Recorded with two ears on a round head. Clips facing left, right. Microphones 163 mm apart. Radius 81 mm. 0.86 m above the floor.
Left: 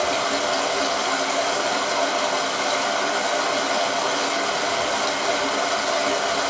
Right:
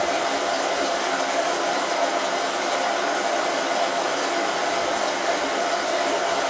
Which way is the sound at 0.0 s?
60° left (ahead or behind).